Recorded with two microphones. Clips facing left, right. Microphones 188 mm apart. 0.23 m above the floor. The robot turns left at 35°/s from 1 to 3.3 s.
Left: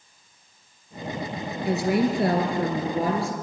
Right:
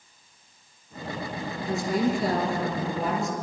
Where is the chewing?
No chewing in this recording.